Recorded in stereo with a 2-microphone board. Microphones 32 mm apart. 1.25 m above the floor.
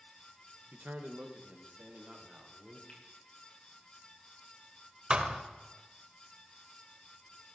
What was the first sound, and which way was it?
A man speaking, 65° right (ahead or behind).